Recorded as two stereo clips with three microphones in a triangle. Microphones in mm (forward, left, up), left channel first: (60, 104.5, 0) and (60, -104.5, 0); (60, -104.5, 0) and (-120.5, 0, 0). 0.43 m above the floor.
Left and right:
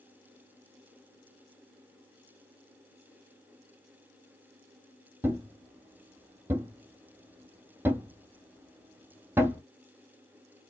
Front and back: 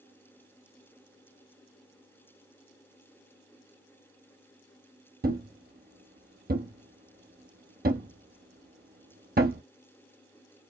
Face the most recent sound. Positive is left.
turn(degrees=-170)